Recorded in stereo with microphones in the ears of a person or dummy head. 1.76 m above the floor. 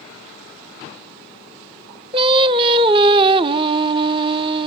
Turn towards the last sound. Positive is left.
turn(degrees=-35)  # may be behind; listen again after turning